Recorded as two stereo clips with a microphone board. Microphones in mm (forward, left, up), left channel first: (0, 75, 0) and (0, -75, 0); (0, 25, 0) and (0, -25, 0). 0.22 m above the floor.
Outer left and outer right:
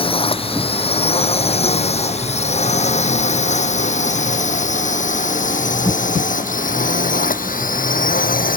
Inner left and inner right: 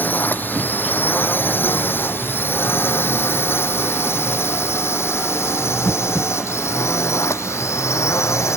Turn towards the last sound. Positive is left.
turn(degrees=70)  # may be behind; listen again after turning